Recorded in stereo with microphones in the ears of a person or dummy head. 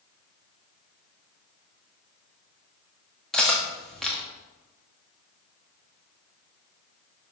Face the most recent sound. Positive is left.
turn(degrees=5)  # may be behind; listen again after turning